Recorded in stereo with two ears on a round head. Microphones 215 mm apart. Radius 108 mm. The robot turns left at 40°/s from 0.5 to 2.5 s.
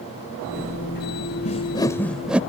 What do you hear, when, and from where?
1.4 s a whoosh: 30° left (ahead or behind); by 2.4 s 5° right (ahead or behind)